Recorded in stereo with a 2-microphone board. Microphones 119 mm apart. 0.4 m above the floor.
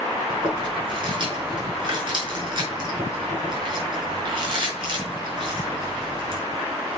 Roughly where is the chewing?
Right.